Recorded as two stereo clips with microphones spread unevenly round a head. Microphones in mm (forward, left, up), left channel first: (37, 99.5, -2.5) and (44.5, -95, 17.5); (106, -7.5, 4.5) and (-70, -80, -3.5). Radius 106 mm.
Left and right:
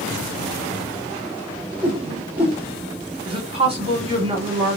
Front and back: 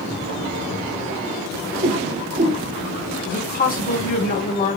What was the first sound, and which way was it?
A whoosh, 155° right.